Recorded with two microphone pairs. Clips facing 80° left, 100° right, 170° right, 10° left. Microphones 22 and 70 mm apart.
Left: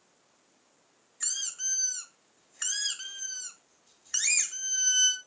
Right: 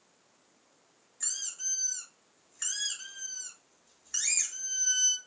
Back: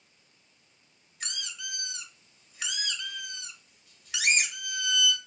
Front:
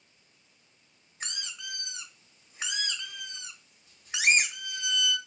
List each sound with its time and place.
1.2 s a squeak: 45° left, 1.0 m